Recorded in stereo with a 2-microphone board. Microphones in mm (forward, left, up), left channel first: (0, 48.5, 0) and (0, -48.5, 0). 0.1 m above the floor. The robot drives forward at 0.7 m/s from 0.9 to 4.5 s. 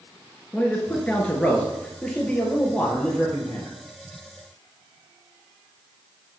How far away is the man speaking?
About 1.4 m.